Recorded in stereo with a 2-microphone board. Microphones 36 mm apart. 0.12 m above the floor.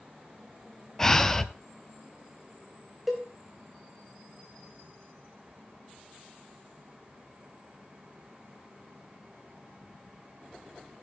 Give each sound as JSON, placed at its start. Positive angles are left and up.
{"t": 1.0, "sound": "breathing", "side_deg": 15, "distance_m": 0.6}
{"t": 3.1, "sound": "a cowbell", "side_deg": -5, "distance_m": 1.6}